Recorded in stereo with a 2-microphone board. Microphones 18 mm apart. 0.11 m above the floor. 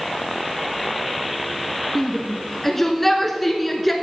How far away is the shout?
About 1.6 m.